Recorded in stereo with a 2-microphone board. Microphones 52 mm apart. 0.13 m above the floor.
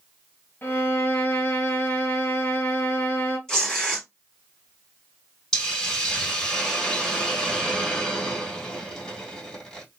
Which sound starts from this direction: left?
A violin, at 0.6 s.